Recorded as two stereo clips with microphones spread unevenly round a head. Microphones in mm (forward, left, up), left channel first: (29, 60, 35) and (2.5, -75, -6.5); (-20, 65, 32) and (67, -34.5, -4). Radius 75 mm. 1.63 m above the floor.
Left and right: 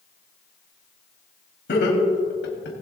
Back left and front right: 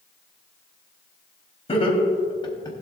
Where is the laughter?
80° left, 3 m; by 2.7 s 70° left, 3.5 m.